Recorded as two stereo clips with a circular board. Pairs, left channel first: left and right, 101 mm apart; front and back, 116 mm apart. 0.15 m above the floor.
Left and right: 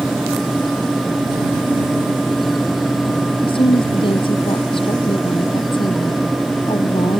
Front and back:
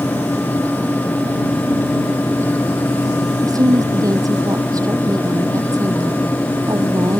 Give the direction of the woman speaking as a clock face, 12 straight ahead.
8 o'clock.